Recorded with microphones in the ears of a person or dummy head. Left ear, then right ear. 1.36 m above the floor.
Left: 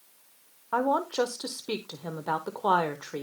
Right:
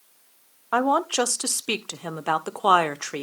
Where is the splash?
No splash in this recording.